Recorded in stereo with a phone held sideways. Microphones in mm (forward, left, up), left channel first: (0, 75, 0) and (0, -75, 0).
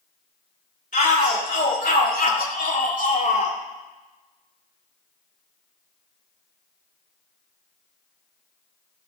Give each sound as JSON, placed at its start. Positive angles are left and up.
{"t": 0.9, "sound": "a shout", "side_deg": 65, "distance_m": 2.5}